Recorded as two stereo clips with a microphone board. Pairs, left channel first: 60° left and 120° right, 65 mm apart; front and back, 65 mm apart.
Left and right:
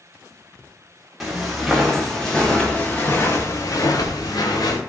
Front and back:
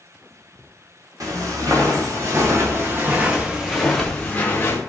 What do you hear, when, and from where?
1.2 s footsteps: 155° left, 1.5 m; by 4.8 s 55° left, 0.9 m